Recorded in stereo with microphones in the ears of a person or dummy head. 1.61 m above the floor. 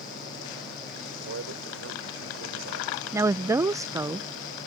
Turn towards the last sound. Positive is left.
turn(degrees=-20)  # may be behind; listen again after turning